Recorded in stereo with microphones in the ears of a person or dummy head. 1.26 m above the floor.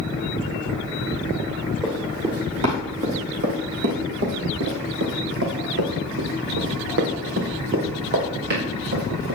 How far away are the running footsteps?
About 3 m.